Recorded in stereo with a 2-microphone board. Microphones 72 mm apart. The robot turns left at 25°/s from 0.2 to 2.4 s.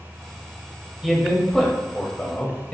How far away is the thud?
No thud in this recording.